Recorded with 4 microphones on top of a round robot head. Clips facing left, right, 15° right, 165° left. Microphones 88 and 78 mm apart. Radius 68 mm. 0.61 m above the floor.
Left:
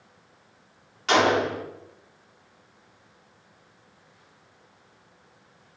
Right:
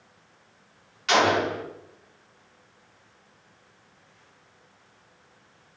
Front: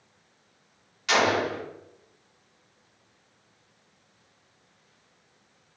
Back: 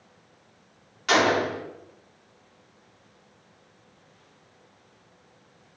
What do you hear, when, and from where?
1.1 s a gunshot: 135° left, 1.9 m